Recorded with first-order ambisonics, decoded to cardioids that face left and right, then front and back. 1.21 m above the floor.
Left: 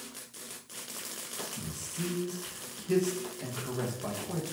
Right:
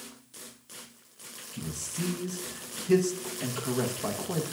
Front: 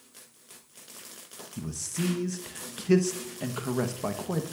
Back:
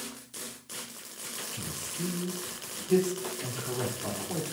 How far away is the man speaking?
About 0.8 m.